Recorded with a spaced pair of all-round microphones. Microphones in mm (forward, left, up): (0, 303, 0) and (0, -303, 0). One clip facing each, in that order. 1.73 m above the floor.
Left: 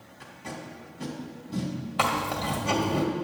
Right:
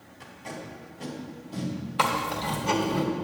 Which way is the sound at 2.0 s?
20° left (ahead or behind).